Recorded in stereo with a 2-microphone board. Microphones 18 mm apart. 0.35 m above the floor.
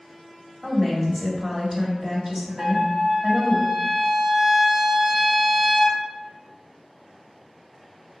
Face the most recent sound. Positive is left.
turn(degrees=-30)  # may be behind; listen again after turning